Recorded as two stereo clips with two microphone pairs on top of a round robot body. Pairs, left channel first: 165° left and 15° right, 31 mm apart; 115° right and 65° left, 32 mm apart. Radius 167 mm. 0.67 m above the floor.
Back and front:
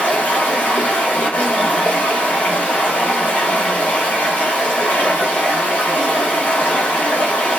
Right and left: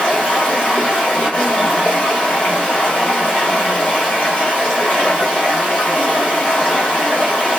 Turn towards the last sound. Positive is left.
turn(degrees=-160)